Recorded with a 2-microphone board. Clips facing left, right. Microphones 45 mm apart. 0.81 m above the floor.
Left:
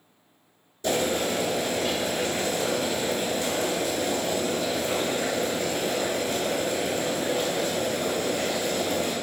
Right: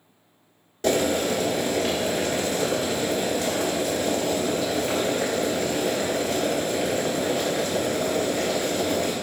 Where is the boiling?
65° right (ahead or behind), 1.4 m.